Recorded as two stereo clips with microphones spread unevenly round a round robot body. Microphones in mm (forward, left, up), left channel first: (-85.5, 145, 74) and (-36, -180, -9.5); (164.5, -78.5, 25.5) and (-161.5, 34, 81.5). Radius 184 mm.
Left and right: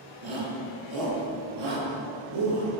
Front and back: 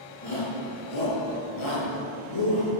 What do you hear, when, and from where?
0.2 s a shout: 60° right, 9 m; by 2.7 s 45° right, 12 m